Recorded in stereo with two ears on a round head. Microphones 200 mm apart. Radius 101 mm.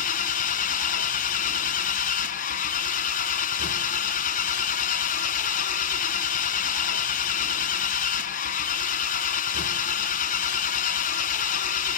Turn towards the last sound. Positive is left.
turn(degrees=35)  # may be behind; listen again after turning